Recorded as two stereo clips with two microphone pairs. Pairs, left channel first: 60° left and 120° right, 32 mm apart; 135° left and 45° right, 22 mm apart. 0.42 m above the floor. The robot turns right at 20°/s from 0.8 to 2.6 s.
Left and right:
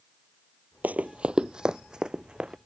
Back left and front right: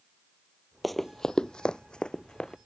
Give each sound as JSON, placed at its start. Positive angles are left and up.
{"t": 0.8, "sound": "running footsteps", "azimuth_deg": -130}